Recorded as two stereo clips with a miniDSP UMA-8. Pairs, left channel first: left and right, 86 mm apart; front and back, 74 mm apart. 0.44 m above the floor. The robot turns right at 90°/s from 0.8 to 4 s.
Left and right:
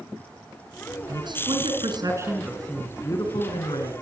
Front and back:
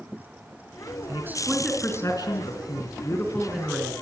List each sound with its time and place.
1.1 s a man speaking: 135° right, 4.5 m; by 3.9 s 120° left, 4.5 m